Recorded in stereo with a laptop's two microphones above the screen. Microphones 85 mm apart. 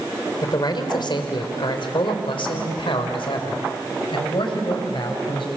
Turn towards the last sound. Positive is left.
turn(degrees=70)  # may be behind; listen again after turning